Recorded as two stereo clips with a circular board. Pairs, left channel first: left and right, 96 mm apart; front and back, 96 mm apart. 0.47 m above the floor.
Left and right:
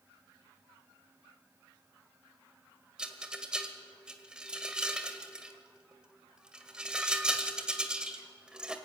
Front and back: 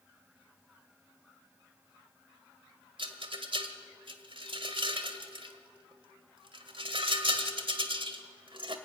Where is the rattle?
170° right, 1.6 m.